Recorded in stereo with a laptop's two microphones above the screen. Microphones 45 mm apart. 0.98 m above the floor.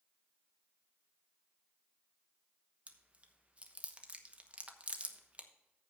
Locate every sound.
2.9 s chewing: 30° right (ahead or behind), 1.0 m